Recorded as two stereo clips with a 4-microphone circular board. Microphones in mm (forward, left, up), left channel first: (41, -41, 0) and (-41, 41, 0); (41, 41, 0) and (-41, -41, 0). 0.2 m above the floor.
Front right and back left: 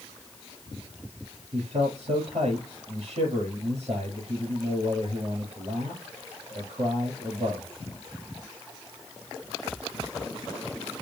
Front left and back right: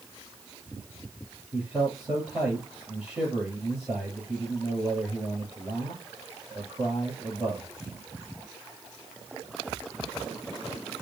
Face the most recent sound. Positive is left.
turn(degrees=150)